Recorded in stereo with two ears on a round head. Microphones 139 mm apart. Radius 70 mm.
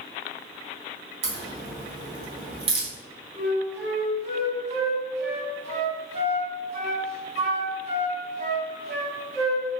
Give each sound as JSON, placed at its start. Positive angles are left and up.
{"t": 1.2, "sound": "a crack", "side_deg": -40, "distance_m": 0.8}
{"t": 3.3, "sound": "a flute", "side_deg": -45, "distance_m": 1.3}